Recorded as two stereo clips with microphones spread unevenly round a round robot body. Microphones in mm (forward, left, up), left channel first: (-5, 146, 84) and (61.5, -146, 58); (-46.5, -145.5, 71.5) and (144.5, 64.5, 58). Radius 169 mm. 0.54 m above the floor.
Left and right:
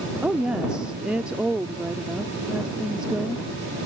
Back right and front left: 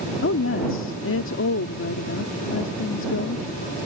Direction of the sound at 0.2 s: 160° right.